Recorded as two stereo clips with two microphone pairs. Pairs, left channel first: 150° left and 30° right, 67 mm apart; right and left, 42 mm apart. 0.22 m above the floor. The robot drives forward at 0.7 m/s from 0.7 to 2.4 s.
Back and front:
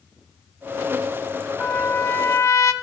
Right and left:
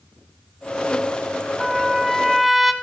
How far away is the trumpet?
About 0.6 m.